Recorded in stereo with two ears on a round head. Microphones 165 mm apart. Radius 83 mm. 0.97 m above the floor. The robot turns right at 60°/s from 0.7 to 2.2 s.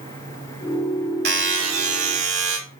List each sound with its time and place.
1.2 s a buzzer: 125° right, 1.3 m; by 2.6 s 65° right, 1.3 m